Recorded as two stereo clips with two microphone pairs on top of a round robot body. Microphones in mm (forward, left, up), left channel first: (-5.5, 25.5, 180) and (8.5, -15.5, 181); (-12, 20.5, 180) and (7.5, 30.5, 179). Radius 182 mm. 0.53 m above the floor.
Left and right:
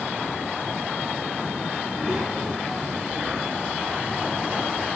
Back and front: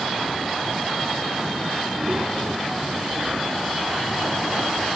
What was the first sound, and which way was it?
A child speaking, 10° left.